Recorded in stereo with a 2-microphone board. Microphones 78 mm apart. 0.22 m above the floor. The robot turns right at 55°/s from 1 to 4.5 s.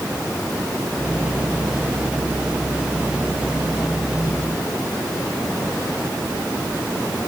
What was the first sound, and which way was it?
Only background noise.